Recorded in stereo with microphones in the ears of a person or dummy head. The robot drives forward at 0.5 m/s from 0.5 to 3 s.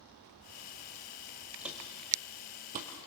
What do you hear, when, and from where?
1.6 s footsteps: 5° right (ahead or behind), 1.2 m; by 2.9 s 35° right (ahead or behind), 1.6 m